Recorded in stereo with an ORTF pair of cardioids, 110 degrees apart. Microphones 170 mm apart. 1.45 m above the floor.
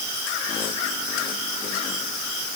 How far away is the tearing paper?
I don't hear tearing paper.